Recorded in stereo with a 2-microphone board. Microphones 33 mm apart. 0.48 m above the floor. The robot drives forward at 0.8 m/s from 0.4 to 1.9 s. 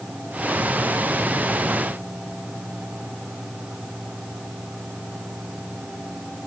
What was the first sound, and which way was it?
Only background noise.